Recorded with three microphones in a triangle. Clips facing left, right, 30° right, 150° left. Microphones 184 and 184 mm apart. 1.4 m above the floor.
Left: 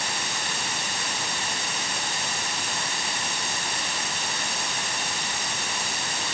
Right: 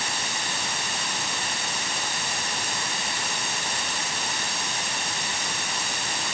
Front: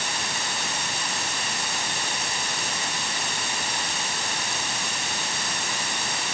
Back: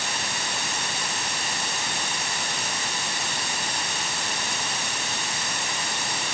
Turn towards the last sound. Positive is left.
No sound to turn to.